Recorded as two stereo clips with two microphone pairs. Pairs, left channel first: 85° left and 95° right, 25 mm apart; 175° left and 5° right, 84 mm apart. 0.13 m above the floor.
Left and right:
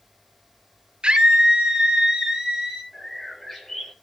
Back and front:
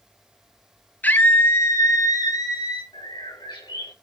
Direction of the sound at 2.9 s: 165° left.